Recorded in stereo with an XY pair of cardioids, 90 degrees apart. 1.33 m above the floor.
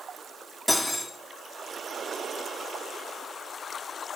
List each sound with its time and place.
0.7 s cutlery clinking: 10° left, 1.9 m